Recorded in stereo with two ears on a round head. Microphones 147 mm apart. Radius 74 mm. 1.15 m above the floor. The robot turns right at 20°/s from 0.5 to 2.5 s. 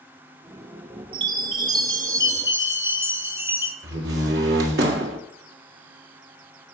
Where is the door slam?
75° right (ahead or behind), 1.8 m.